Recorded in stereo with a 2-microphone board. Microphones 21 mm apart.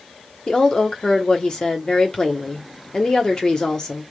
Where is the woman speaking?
30° left (ahead or behind), 1.1 m.